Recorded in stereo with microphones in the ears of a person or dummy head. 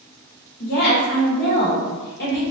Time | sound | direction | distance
0.6 | a woman speaking | 50° left (ahead or behind) | 1.1 m